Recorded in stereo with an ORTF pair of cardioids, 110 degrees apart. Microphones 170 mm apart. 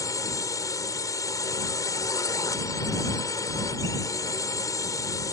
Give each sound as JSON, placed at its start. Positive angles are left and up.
{"t": 0.0, "sound": "a drone", "azimuth_deg": 20}